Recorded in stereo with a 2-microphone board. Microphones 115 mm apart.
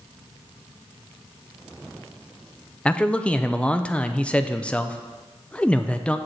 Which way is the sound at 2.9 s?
10° left (ahead or behind).